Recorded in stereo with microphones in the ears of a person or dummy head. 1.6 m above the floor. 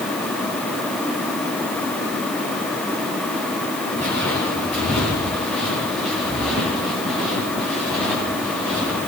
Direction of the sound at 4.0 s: 10° left (ahead or behind).